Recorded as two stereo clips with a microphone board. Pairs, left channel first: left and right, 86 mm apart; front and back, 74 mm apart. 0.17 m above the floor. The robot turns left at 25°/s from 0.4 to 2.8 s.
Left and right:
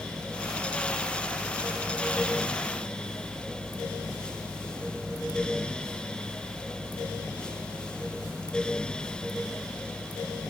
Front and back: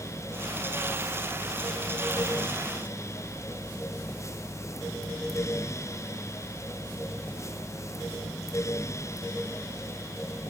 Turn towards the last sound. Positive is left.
No sound to turn to.